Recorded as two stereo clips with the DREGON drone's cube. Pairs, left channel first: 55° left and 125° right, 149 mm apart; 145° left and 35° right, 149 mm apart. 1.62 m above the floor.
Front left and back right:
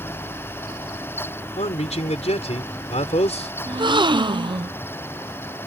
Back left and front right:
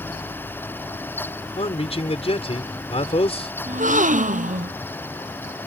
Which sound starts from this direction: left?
A man speaking, at 1.6 s.